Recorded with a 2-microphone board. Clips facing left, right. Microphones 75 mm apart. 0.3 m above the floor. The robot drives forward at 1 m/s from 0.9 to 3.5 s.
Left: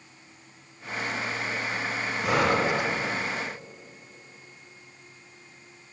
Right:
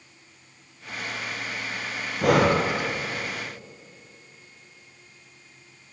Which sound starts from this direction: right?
Breathing, at 2.2 s.